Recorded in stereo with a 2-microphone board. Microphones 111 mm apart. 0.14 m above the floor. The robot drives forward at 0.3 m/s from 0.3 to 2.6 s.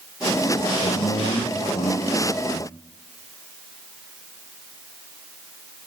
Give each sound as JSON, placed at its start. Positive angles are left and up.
{"t": 0.8, "sound": "a man speaking", "side_deg": 70, "distance_m": 4.5}